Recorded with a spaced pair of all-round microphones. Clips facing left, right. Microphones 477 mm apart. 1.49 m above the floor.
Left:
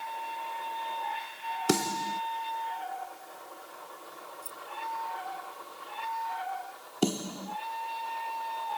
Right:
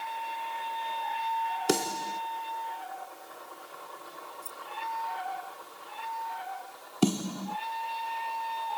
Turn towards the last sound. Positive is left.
turn(degrees=-20)  # may be behind; listen again after turning